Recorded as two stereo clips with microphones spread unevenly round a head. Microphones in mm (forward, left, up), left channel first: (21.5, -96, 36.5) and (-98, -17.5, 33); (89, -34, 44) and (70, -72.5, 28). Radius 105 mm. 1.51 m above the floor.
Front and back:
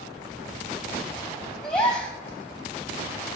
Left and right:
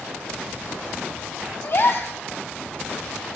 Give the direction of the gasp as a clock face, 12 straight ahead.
10 o'clock.